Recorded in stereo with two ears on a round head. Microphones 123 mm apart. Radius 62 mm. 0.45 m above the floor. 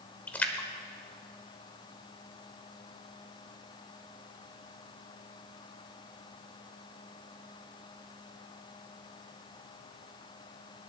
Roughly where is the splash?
Centre.